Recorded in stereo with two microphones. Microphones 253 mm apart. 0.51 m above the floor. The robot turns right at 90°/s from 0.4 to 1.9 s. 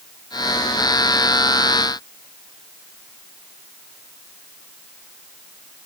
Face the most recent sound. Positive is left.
No sound to turn to.